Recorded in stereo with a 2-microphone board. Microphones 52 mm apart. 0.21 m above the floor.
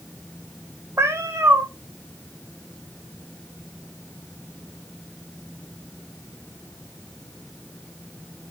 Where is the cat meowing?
60° right (ahead or behind), 1.3 m.